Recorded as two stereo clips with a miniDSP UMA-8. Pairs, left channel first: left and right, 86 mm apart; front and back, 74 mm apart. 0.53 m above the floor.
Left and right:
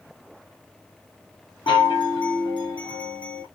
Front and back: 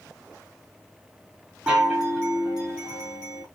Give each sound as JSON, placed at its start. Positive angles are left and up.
{"t": 1.7, "sound": "a chime", "azimuth_deg": 100, "distance_m": 3.0}